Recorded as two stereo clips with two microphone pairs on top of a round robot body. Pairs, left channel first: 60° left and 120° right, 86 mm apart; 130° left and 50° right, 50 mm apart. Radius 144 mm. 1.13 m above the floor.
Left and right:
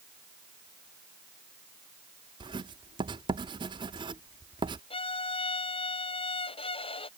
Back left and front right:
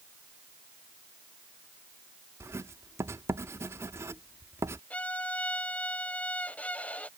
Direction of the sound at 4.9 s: 65° left.